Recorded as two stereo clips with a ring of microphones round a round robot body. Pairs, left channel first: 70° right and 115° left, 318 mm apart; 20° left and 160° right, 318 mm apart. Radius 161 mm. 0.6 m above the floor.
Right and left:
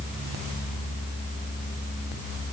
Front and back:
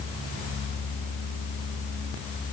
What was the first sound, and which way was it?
Only background noise.